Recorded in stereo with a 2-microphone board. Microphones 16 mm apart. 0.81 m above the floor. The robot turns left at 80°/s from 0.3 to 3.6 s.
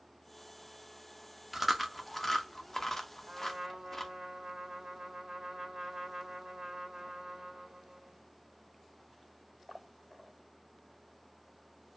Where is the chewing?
10° right (ahead or behind), 0.6 m; by 4.1 s 15° left (ahead or behind), 0.6 m.